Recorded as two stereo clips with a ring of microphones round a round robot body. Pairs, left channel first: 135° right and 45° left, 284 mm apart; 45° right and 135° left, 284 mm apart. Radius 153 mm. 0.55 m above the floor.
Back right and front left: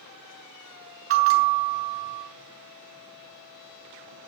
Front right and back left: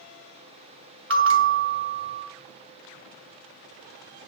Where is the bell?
90° left, 2 m.